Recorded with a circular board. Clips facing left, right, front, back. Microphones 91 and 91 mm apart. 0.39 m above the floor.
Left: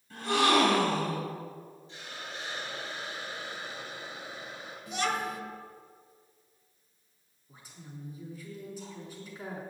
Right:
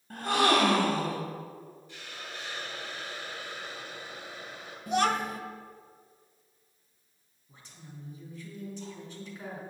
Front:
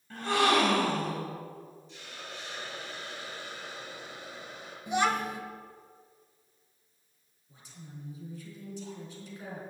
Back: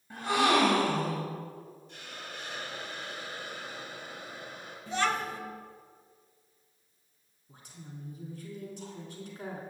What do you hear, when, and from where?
0.1 s a gasp: 105° right, 2.5 m
1.9 s a hiss: 155° left, 3 m
4.9 s a child speaking: 70° right, 1.0 m
7.5 s a woman speaking: 170° left, 3 m